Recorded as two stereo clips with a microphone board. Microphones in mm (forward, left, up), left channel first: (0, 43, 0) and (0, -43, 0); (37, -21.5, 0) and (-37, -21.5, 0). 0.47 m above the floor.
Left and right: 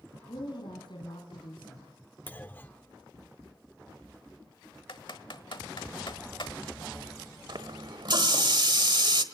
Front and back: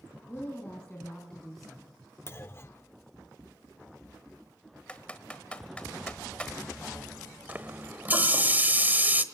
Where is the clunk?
30° left, 0.7 m.